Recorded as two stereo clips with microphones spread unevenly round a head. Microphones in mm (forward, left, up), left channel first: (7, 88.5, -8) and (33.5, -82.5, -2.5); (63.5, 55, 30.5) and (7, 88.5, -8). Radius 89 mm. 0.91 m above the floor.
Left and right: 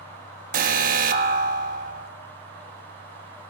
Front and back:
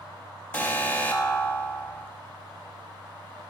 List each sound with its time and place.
0.5 s an alarm: 125° right, 1.6 m